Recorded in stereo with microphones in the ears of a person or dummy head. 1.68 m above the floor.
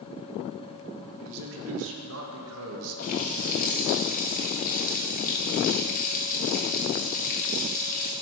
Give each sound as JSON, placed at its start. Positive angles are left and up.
{"t": 1.2, "sound": "a man speaking", "side_deg": -65, "distance_m": 2.0}
{"t": 3.0, "sound": "a running tap", "side_deg": 45, "distance_m": 1.0}